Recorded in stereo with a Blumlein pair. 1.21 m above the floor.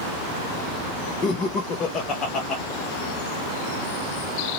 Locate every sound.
1.2 s laughter: 25° left, 0.7 m